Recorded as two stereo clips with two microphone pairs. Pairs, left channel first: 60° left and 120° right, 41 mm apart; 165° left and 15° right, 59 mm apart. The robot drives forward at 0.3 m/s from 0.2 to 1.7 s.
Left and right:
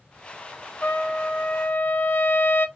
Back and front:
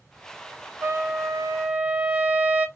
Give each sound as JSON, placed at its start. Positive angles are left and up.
{"t": 0.8, "sound": "a trumpet", "azimuth_deg": 20, "distance_m": 0.8}